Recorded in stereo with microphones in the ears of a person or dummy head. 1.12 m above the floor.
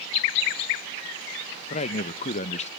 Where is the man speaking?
40° left (ahead or behind), 0.6 m.